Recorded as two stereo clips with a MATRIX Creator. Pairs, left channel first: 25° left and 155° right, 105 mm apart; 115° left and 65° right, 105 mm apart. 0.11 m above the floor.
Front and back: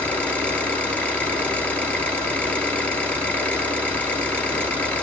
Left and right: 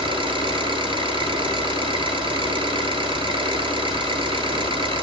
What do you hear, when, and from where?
0.0 s an engine running: 50° right, 1.5 m